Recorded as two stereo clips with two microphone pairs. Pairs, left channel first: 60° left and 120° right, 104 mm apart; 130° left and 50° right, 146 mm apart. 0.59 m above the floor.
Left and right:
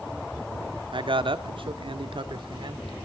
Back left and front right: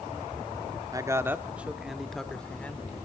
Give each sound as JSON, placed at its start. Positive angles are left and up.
{"t": 0.9, "sound": "a man speaking", "azimuth_deg": -110, "distance_m": 1.0}